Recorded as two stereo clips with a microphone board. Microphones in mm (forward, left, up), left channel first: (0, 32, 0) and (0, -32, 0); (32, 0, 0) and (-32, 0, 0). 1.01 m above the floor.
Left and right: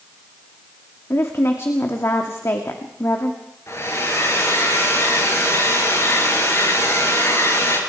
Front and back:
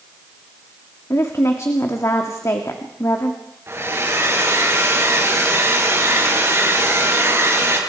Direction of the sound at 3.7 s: 130° left.